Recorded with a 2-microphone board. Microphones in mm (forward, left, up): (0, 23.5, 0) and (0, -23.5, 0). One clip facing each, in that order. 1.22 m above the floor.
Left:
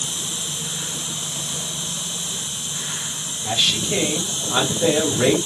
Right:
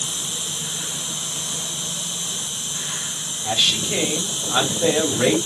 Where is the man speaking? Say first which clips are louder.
Even; 5° right (ahead or behind), 2.5 m.